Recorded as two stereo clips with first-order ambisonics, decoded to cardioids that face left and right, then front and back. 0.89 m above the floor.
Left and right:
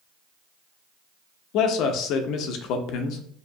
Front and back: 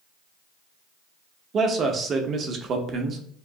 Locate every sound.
1.5 s a man speaking: 120° left, 0.6 m